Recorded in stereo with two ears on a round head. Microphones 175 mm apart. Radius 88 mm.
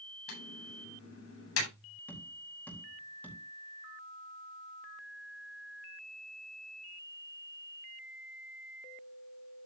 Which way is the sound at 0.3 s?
85° left.